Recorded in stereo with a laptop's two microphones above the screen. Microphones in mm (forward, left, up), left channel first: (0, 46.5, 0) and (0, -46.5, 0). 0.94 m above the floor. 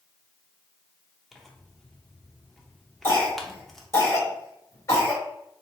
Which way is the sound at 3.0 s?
30° left (ahead or behind).